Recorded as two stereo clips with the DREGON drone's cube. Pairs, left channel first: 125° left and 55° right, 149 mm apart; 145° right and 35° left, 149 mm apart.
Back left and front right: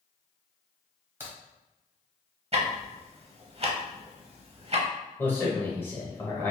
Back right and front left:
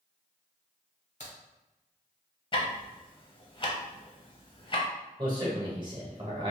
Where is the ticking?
95° right, 0.7 m.